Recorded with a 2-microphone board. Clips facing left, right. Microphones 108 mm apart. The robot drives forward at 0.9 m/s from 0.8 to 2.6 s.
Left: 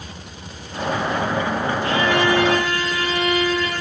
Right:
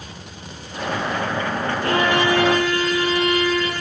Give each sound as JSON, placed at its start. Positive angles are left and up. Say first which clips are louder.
{"t": 1.8, "sound": "a violin", "louder": "right 1 dB", "side_deg": -45, "distance_m": 8.5}